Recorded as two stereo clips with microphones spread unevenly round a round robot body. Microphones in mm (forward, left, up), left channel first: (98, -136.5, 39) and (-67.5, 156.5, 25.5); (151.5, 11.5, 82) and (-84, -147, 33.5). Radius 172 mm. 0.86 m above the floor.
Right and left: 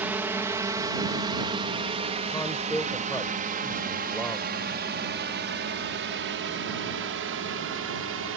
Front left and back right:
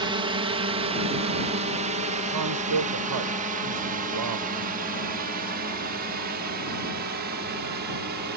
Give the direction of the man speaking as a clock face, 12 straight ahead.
5 o'clock.